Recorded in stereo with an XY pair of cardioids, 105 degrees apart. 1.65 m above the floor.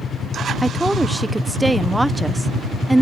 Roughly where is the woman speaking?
Ahead.